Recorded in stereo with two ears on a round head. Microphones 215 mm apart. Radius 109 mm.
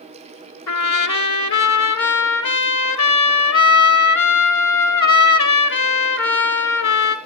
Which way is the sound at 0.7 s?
85° left.